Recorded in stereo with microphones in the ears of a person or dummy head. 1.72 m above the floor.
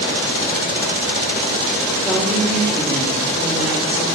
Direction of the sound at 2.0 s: Centre (ahead or behind).